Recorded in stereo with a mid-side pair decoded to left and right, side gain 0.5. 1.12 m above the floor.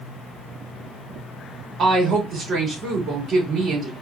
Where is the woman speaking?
60° right, 2.5 m.